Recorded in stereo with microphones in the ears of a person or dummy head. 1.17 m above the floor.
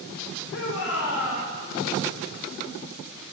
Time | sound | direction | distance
0.5 | a shout | 70° left (ahead or behind) | 3.5 m